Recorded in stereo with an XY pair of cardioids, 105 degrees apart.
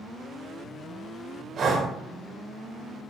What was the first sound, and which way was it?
Breathing, 55° right.